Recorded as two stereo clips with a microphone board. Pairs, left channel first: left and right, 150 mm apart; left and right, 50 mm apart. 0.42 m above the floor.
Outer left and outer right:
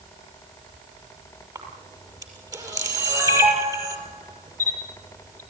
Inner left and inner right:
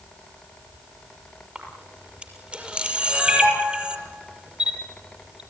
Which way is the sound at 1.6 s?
25° right (ahead or behind).